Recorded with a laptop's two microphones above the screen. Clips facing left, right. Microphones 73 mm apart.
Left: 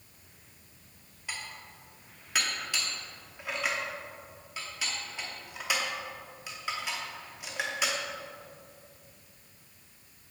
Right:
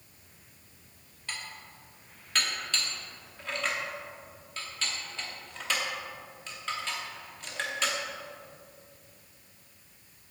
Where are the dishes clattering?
10° left (ahead or behind), 1.0 m.